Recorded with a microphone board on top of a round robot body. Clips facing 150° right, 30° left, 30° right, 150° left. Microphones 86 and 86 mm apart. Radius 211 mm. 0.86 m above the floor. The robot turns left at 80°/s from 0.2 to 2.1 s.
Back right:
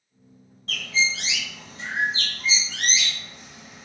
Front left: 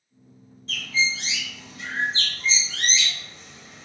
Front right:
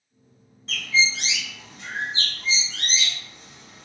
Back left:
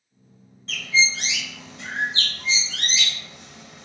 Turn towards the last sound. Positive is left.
turn(degrees=130)